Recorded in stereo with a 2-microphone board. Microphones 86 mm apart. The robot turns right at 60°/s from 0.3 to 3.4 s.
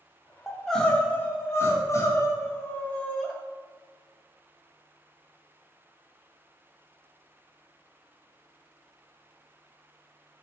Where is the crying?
Straight ahead, 0.5 m; by 3.3 s 170° left, 0.5 m.